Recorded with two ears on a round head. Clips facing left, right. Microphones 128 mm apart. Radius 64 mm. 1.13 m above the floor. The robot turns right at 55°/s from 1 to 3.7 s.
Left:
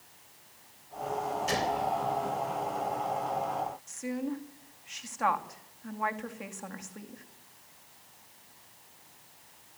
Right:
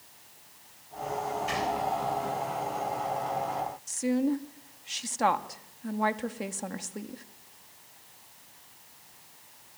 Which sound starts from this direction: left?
A gunshot, at 1.5 s.